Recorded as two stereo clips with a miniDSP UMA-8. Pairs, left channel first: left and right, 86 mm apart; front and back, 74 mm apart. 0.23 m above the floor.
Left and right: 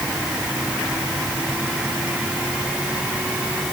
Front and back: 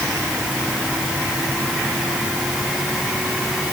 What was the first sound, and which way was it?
Only background noise.